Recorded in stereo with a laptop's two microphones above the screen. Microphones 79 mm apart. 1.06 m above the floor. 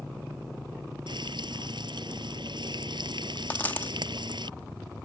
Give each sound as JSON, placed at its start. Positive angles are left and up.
{"t": 1.1, "sound": "frying", "side_deg": -80}
{"t": 3.5, "sound": "a dropped coin", "side_deg": 25}